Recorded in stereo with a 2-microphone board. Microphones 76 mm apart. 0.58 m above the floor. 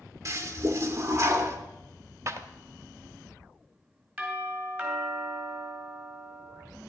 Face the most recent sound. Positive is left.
turn(degrees=-25)  # may be behind; listen again after turning